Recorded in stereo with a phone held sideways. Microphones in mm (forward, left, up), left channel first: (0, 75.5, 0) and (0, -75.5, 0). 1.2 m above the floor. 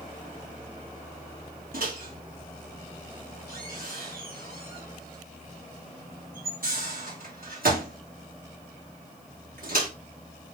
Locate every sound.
1.7 s a microwave: 75° right (ahead or behind), 1.6 m